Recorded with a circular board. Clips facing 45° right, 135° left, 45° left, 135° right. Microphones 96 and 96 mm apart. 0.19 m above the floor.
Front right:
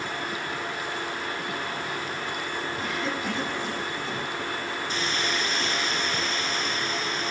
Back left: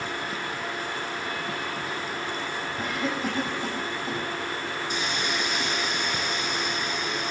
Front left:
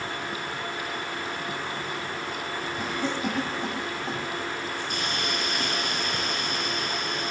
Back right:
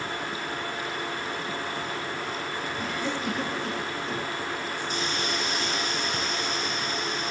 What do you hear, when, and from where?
2.8 s a cough: 85° left, 9.5 m
4.9 s a hiss: 60° left, 3 m